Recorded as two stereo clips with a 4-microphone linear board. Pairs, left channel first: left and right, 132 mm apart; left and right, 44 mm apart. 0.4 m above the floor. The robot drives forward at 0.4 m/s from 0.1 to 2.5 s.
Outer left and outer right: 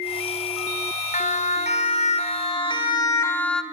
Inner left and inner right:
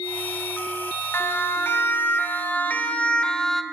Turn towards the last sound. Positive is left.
turn(degrees=5)  # may be behind; listen again after turning